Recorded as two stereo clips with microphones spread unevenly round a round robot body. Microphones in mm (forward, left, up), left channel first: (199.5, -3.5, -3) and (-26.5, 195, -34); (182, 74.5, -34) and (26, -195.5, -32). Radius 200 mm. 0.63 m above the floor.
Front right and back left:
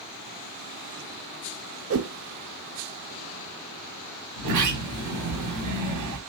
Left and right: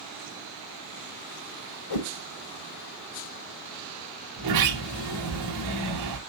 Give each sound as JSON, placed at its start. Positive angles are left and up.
{"t": 1.9, "sound": "a whoosh", "azimuth_deg": 90, "distance_m": 1.0}
{"t": 4.4, "sound": "a sliding door", "azimuth_deg": -170, "distance_m": 2.5}